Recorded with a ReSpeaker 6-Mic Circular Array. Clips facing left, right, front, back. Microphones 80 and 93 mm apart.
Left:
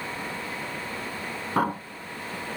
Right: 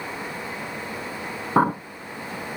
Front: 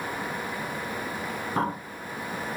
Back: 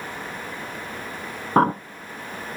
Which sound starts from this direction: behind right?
A bird, at 1.6 s.